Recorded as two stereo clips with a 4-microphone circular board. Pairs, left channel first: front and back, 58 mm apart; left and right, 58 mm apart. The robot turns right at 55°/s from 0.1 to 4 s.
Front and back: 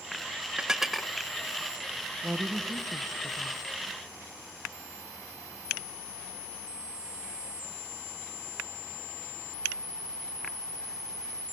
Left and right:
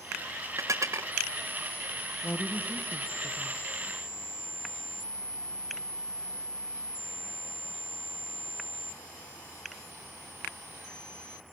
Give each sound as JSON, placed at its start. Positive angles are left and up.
{"t": 0.6, "sound": "dishes clattering", "azimuth_deg": -110, "distance_m": 0.6}
{"t": 2.2, "sound": "a woman speaking", "azimuth_deg": 115, "distance_m": 0.9}